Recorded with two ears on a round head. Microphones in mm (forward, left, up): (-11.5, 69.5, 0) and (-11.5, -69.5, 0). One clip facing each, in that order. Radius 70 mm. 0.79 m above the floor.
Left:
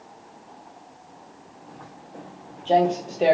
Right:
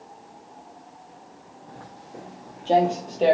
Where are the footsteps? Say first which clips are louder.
Right 1 dB; 25° right (ahead or behind), 1.2 m; by 3.4 s 10° left (ahead or behind), 0.8 m.